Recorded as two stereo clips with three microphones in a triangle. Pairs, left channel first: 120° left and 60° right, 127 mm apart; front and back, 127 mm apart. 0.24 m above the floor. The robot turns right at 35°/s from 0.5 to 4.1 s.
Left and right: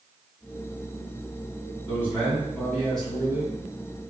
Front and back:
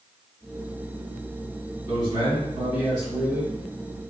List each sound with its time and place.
1.9 s a man speaking: 165° left, 1.9 m; by 3.5 s 135° right, 1.9 m